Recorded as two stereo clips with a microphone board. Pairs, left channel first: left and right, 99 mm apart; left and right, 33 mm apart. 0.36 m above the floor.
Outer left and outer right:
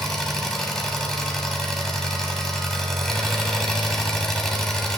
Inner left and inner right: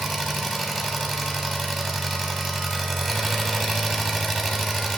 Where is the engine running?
5° left (ahead or behind), 1.1 m.